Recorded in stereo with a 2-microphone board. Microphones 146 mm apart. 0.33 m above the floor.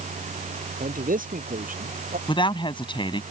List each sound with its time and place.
0.8 s a man speaking: 70° right (ahead or behind)
2.3 s a woman speaking: 35° left (ahead or behind)